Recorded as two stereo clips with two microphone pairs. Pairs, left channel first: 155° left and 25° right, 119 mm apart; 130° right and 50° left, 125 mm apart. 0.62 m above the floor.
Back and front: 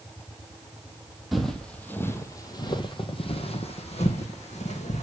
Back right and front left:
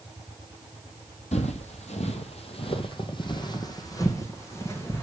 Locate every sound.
1.3 s footsteps: 115° right, 1.2 m; by 5.0 s 160° left, 2 m